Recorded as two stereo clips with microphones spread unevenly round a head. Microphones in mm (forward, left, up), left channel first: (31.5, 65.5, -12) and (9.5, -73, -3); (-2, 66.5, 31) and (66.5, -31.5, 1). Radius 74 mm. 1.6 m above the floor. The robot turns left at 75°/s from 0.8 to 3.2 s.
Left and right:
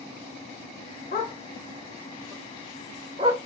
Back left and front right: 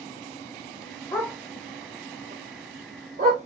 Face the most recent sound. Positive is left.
turn(degrees=-80)